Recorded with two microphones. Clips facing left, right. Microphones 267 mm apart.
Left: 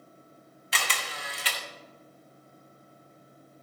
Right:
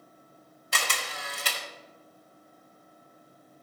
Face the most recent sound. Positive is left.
turn(degrees=-50)  # may be behind; listen again after turning